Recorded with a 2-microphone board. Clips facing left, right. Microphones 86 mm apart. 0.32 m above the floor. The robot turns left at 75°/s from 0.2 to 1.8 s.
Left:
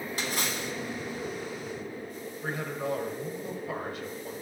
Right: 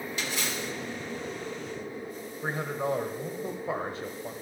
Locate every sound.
0.2 s a splash: 135° left, 1.4 m; by 0.7 s 95° left, 1.4 m
2.4 s a man speaking: 30° right (ahead or behind), 1.1 m